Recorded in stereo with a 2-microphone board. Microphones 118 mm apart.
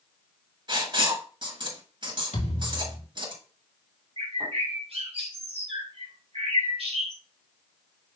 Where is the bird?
60° right (ahead or behind), 3 m.